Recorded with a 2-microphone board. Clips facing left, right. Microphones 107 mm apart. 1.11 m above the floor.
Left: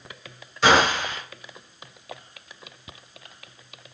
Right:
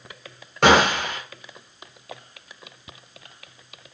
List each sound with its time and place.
0.6 s a gunshot: 60° right (ahead or behind), 0.5 m